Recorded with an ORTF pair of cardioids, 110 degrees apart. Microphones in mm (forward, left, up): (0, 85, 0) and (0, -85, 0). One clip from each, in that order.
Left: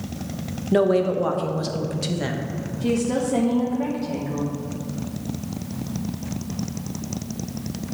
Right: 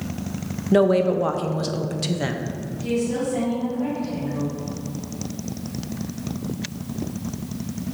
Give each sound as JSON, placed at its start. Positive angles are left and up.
{"t": 0.7, "sound": "a woman speaking", "azimuth_deg": -10, "distance_m": 0.6}
{"t": 2.8, "sound": "a woman speaking", "azimuth_deg": 60, "distance_m": 1.4}